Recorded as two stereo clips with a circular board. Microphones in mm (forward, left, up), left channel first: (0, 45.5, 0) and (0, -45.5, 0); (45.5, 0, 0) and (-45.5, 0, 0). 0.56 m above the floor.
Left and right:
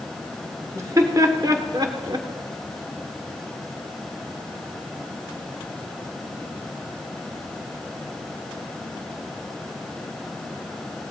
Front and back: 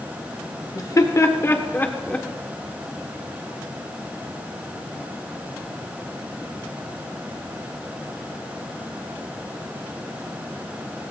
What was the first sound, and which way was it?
Laughter, 40° right.